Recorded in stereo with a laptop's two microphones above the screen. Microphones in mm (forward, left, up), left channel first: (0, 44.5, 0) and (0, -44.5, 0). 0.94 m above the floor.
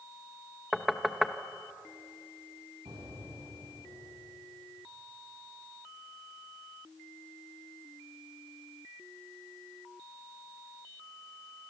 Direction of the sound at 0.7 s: Centre (ahead or behind).